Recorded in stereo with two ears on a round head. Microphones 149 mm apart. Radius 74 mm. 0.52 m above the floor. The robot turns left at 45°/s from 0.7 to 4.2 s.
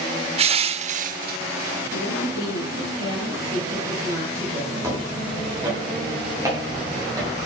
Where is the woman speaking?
85° left, 9 m; by 4.9 s 20° right, 9 m.